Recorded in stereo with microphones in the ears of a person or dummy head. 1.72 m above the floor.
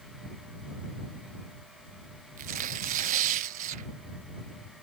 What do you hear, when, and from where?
2.4 s tearing paper: 45° right (ahead or behind)